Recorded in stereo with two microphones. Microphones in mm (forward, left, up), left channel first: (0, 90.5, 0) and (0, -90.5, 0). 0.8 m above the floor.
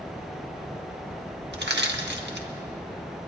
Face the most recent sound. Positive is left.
turn(degrees=-70)  # may be behind; listen again after turning